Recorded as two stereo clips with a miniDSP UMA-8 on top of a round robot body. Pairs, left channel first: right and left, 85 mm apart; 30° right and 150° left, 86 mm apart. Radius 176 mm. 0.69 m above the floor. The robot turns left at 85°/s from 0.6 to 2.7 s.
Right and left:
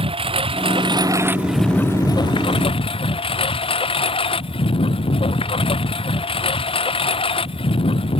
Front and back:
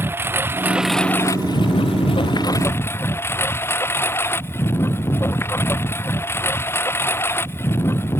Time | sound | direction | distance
0.0 | a lawn mower | 85° left | ?